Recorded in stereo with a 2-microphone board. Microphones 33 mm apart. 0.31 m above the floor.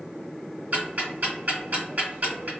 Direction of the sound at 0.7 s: 55° right (ahead or behind).